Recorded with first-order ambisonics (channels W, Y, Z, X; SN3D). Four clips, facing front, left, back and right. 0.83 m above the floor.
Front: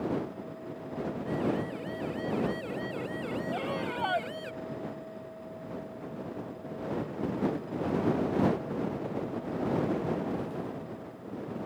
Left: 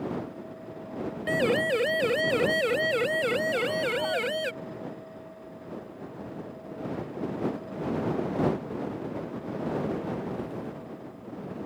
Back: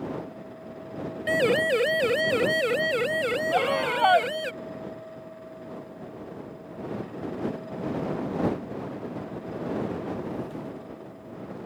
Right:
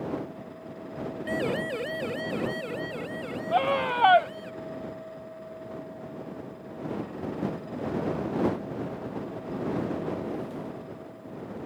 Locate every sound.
1.3 s a siren: 160° left; by 4.5 s 125° left
3.5 s a scream: 125° right